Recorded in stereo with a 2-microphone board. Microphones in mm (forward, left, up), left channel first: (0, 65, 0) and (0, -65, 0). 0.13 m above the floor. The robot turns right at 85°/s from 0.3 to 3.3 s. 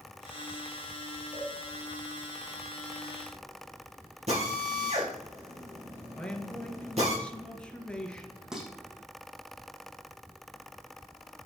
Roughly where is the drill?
Right.